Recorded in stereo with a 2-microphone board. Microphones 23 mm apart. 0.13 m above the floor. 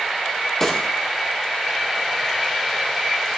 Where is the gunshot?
20° left (ahead or behind), 3 m.